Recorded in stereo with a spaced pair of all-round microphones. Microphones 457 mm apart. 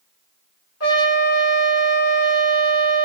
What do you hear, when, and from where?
0.8 s a trumpet: 35° left (ahead or behind), 1.6 m